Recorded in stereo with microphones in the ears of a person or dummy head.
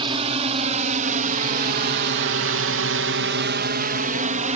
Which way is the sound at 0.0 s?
30° right (ahead or behind).